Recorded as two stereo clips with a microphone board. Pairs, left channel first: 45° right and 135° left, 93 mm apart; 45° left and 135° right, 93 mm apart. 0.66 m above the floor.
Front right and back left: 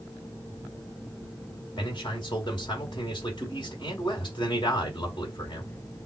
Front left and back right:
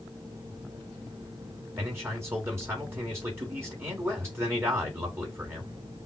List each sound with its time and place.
1.8 s a man speaking: 75° right, 2 m